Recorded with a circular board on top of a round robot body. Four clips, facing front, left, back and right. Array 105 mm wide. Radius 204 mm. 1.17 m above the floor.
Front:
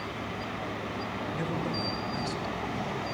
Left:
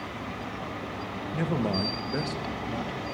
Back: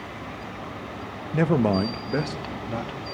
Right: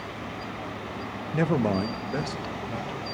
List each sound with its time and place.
1.3 s a man speaking: 150° right, 1.2 m; by 3.0 s 175° left, 2.5 m